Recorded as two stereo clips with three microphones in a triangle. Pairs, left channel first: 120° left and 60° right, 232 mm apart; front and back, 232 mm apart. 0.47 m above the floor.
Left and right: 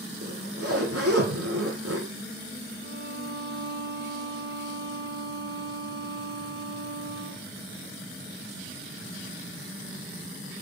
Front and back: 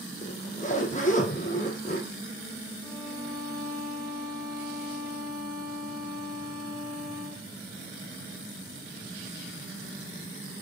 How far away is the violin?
About 6.5 m.